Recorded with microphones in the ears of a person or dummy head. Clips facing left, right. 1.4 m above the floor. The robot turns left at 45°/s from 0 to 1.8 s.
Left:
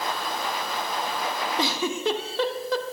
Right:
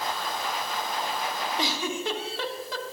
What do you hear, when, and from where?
1.6 s a giggle: 80° left, 1.1 m; by 3.0 s 75° left (ahead or behind), 1.1 m